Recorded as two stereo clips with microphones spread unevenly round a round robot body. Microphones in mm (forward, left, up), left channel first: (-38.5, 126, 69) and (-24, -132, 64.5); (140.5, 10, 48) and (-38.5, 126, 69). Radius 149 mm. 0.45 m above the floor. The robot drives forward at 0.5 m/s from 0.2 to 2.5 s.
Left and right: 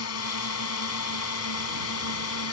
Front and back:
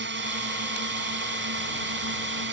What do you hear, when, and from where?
0.0 s a drone: 115° left; by 2.5 s 120° left